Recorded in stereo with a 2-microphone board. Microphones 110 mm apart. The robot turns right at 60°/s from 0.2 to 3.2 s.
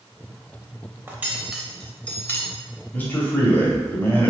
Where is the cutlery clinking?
20° right (ahead or behind), 0.6 m; by 2.5 s 20° left (ahead or behind), 0.6 m.